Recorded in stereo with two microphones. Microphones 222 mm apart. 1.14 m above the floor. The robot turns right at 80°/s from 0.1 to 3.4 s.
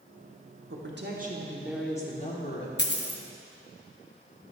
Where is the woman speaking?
85° right, 1.2 m; by 2.7 s 75° left, 1.2 m.